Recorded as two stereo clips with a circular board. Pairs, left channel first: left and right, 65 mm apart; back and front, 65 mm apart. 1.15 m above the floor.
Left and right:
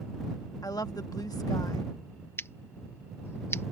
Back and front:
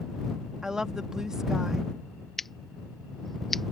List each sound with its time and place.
0.6 s a woman speaking: 80° left
2.4 s scissors: 95° left